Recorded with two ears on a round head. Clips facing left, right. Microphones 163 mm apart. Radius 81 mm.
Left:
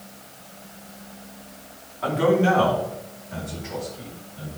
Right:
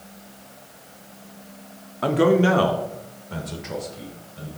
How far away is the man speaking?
About 0.9 m.